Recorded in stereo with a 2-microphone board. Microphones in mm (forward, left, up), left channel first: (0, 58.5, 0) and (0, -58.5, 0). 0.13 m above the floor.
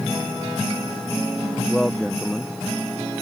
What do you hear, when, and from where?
1.7 s a man speaking: 5° left (ahead or behind)